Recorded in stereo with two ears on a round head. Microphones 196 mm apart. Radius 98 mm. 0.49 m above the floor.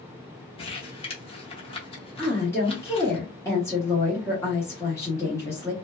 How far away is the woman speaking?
About 0.9 m.